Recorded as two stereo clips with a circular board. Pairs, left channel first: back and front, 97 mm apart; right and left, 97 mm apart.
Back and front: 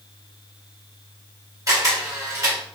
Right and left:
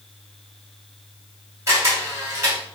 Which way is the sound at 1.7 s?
40° left.